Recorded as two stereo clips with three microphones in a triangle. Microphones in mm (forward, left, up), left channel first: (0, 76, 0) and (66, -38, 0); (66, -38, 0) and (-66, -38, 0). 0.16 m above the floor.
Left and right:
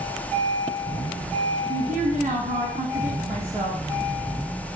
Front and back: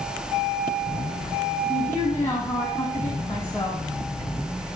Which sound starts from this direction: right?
A woman speaking, at 1.7 s.